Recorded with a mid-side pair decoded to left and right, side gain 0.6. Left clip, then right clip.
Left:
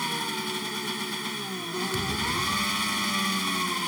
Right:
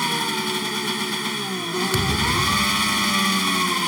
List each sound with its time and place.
0.0 s an engine running: 35° right
1.9 s a thud: 50° right